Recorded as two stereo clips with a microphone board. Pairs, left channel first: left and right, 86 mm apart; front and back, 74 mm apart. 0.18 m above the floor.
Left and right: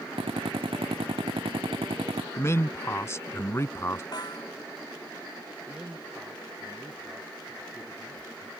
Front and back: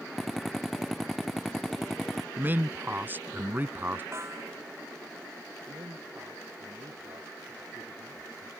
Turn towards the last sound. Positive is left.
turn(degrees=-170)